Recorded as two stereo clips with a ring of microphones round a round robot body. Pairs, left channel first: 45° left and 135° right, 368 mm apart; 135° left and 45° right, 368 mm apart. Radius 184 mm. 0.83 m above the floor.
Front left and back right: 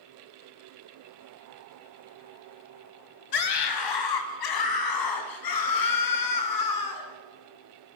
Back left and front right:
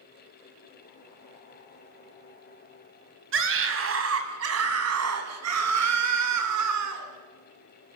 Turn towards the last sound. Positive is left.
turn(degrees=5)